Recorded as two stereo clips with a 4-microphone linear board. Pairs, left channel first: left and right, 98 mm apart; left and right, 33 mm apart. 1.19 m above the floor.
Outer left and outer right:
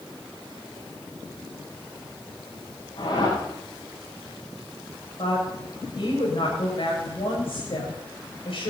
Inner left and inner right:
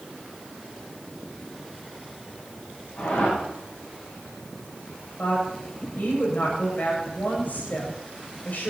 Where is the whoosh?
55° left (ahead or behind), 7.5 m.